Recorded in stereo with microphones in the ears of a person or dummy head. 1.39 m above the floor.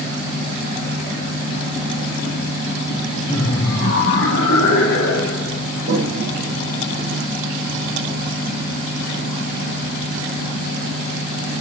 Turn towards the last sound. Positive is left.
turn(degrees=-80)